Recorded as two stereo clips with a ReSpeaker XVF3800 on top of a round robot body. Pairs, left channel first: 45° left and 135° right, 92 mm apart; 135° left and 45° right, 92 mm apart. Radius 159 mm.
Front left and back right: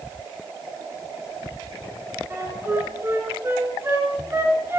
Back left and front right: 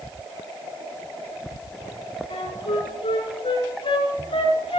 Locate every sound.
2.3 s a flute: 160° left, 3 m